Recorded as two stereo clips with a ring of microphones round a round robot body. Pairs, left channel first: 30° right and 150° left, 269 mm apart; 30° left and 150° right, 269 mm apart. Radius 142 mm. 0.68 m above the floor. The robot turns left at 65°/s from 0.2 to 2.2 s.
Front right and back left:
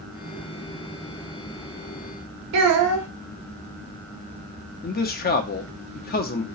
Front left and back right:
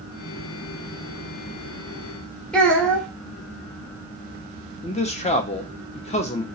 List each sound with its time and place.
2.5 s a child speaking: 115° left, 1.1 m
4.8 s a man speaking: 15° right, 0.6 m